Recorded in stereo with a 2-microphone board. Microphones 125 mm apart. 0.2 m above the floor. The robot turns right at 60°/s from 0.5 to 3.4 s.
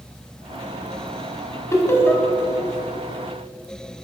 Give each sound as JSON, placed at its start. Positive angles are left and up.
{"t": 1.7, "sound": "laughter", "side_deg": 25, "distance_m": 1.1}